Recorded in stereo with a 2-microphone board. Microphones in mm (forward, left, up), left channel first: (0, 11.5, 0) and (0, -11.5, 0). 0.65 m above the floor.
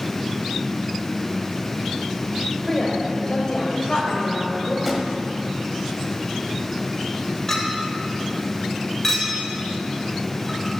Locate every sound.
2.7 s a woman speaking: 15° left (ahead or behind), 3 m; by 4.8 s 45° left (ahead or behind), 3.5 m
4.8 s a drawer: centre (ahead or behind), 1.4 m
7.5 s a clink: 20° left (ahead or behind), 1.4 m